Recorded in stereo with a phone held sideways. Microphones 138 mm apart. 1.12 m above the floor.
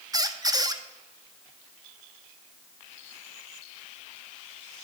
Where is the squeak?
25° right (ahead or behind), 0.5 m.